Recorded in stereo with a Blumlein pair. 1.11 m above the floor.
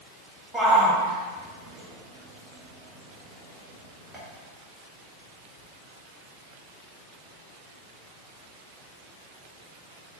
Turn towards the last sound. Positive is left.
turn(degrees=-25)